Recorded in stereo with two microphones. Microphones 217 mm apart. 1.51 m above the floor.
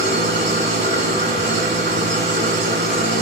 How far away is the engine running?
About 7 m.